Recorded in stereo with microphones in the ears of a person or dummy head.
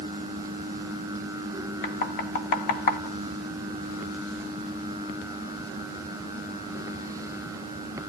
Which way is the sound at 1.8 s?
55° left (ahead or behind).